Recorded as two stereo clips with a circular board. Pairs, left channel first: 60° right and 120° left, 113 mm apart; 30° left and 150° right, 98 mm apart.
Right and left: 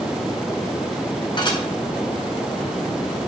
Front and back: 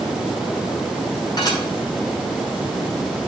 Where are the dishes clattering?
15° right, 5 m.